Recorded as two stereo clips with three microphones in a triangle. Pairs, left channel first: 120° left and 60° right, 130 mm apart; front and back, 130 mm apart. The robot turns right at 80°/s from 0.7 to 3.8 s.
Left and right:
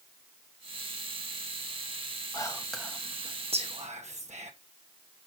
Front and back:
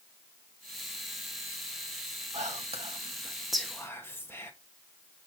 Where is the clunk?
No clunk in this recording.